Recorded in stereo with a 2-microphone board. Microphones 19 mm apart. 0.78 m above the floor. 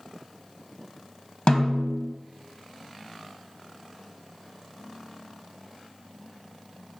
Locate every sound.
1.5 s a snare drum: 55° left (ahead or behind), 0.9 m